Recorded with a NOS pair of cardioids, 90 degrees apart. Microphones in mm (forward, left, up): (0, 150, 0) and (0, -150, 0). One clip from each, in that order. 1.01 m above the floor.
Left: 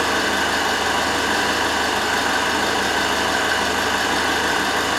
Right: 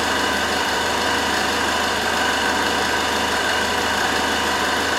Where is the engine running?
30° right, 1.1 m.